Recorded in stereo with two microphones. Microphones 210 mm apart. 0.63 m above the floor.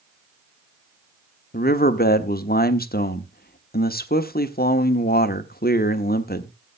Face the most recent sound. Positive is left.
turn(degrees=45)  # may be behind; listen again after turning